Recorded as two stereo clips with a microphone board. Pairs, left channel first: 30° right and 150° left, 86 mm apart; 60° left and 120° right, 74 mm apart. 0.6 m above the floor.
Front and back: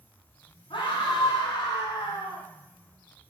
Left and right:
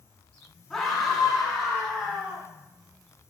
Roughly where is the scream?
Ahead.